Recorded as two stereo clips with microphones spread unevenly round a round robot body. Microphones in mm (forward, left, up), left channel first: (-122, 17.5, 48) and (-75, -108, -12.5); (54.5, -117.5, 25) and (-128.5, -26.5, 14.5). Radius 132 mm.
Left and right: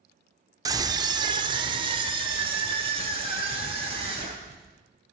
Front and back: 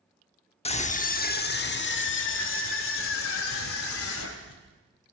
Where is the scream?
80° right, 1.2 m; by 4.6 s 20° right, 3 m.